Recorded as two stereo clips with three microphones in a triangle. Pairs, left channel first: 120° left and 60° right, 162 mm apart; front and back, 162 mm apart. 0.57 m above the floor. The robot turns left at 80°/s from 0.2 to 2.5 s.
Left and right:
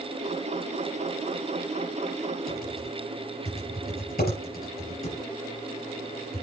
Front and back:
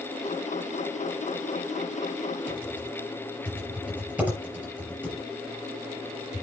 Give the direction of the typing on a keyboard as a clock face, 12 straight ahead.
9 o'clock.